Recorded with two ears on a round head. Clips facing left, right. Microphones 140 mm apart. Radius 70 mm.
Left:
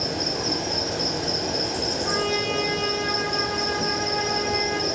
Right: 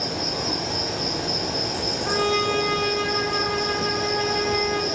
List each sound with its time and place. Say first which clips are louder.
0.0 s an insect: even; 30° left (ahead or behind), 1.0 m
2.0 s a trumpet: right 5 dB; 35° right (ahead or behind), 1.9 m